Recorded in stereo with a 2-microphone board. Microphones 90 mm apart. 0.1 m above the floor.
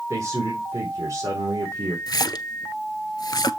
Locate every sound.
0.1 s a man speaking: 35° right (ahead or behind), 3.5 m
2.1 s a splash: 50° left (ahead or behind), 0.6 m